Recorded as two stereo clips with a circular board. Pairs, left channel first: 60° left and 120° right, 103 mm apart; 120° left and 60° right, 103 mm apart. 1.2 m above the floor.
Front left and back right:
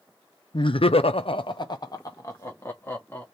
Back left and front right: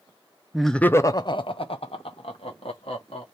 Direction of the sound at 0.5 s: 25° left.